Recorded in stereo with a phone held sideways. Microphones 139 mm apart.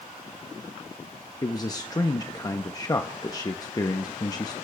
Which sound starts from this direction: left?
A man speaking, at 1.4 s.